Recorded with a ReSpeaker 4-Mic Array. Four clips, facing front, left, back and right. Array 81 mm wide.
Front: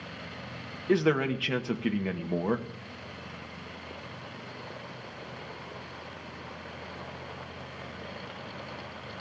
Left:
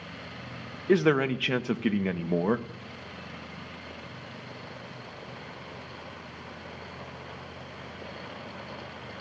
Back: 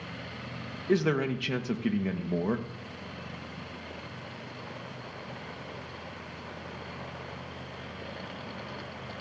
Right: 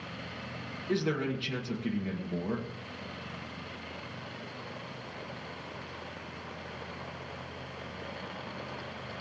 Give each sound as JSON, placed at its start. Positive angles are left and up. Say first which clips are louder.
{"t": 0.9, "sound": "a man speaking", "louder": "left 8 dB, front 1 dB", "azimuth_deg": 75, "distance_m": 0.8}